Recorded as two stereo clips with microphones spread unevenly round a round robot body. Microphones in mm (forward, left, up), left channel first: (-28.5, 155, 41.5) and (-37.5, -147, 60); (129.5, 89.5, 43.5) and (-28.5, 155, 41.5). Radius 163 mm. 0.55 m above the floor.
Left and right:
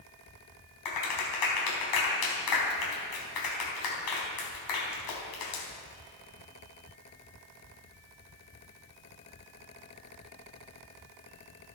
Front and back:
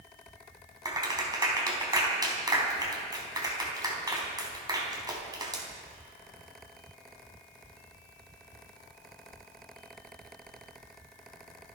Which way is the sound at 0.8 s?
90° left.